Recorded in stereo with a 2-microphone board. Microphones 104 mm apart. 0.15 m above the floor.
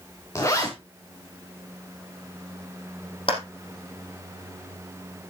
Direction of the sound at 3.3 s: 60° left (ahead or behind).